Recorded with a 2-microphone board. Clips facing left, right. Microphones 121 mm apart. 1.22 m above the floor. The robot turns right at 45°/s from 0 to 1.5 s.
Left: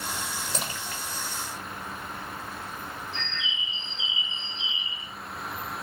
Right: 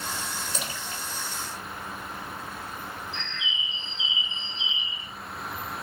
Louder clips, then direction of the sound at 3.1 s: Even; 45° left (ahead or behind).